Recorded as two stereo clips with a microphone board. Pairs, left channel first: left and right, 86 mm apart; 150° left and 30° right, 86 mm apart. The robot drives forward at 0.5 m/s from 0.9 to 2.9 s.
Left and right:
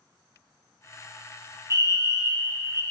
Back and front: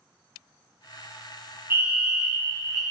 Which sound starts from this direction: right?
A fire alarm, at 1.7 s.